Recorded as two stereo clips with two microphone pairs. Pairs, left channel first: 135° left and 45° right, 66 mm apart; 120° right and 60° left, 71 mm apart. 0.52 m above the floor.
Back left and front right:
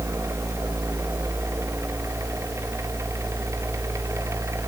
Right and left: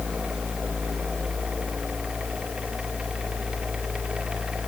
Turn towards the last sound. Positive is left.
No sound to turn to.